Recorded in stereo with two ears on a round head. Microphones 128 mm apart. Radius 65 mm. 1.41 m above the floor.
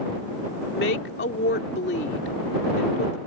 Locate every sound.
0.7 s a woman speaking: 80° left